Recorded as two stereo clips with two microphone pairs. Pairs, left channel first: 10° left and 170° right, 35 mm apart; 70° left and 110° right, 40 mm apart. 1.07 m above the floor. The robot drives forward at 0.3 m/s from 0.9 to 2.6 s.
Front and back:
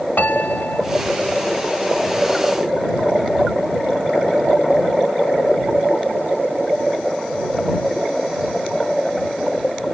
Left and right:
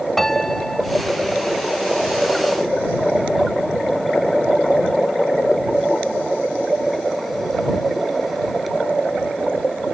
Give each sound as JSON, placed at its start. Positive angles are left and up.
{"t": 0.2, "sound": "a piano", "azimuth_deg": -10}